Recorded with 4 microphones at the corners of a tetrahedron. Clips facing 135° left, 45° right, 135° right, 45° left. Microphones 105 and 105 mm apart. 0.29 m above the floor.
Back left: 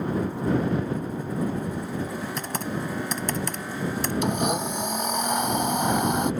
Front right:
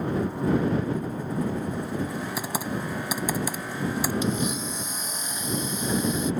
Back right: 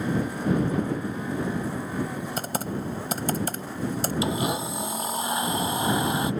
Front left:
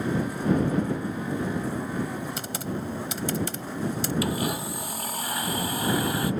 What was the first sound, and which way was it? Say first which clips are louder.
Typing on a keyboard: even, back right 2 dB; 120° right.